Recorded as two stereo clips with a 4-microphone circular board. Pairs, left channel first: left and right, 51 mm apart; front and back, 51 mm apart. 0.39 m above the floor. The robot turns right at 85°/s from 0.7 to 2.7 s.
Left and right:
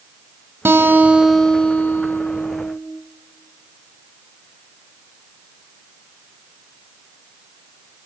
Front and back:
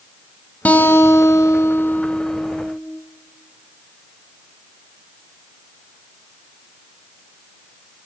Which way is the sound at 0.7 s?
55° right.